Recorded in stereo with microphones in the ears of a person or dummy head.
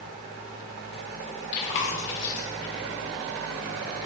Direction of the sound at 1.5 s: 40° left (ahead or behind).